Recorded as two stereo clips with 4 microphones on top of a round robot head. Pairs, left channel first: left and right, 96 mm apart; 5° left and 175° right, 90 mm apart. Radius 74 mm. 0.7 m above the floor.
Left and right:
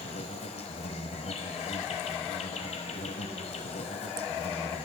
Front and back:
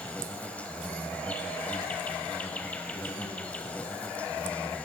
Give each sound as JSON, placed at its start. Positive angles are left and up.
{"t": 0.0, "sound": "an insect", "azimuth_deg": 80, "distance_m": 1.5}